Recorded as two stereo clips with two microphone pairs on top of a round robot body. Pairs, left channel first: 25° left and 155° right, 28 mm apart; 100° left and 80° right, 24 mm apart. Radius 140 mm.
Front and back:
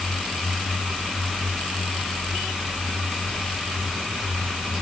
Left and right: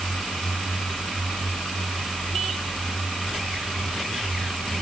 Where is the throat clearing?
No throat clearing in this recording.